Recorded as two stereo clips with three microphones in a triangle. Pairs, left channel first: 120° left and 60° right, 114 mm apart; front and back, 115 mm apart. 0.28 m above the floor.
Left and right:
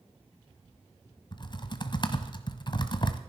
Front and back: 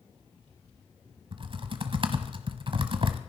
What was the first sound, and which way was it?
Typing on a keyboard, 155° left.